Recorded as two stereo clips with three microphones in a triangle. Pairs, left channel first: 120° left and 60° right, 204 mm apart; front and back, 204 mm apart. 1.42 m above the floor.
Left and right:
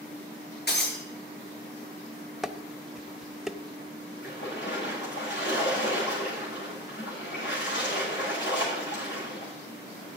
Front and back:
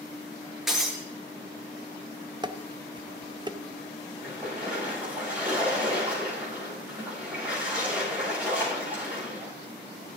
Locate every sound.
0.7 s breaking glass: 90° left, 5 m
2.4 s dishes clattering: 145° right, 0.7 m
4.2 s a splash: 100° left, 9.5 m